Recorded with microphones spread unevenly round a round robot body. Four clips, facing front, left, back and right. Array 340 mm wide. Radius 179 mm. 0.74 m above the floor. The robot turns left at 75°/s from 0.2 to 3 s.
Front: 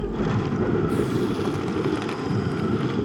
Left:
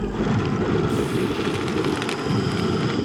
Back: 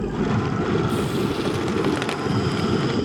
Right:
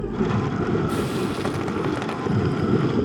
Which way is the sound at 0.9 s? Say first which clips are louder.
Left 2 dB, even; 65° right.